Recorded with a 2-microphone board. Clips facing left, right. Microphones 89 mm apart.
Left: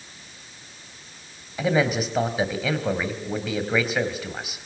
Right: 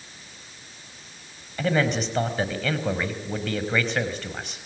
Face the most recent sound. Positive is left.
turn(degrees=5)  # may be behind; listen again after turning